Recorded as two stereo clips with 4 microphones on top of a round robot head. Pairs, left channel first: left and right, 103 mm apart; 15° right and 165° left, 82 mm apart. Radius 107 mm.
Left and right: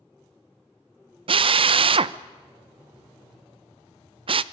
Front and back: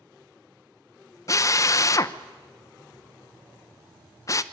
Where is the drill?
60° right, 0.7 m.